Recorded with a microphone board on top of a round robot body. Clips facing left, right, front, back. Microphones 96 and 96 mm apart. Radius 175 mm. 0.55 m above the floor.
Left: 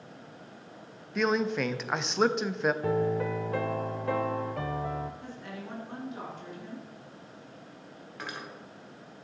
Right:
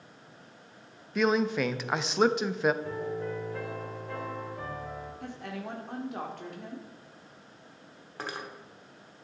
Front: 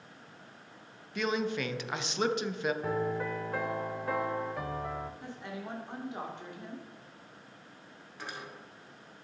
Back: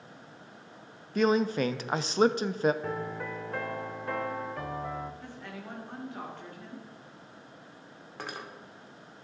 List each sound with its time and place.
1.1 s a man speaking: 175° right, 0.7 m
2.8 s a piano: 85° left, 0.5 m
5.2 s a woman speaking: 70° right, 2 m
8.2 s cutlery clinking: 145° right, 1.3 m